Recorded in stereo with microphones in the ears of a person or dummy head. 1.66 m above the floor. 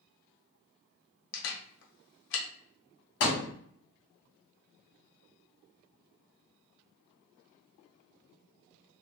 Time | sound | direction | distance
1.3 | a camera shutter | 70° left (ahead or behind) | 1.0 m
3.2 | a thud | 60° left (ahead or behind) | 1.9 m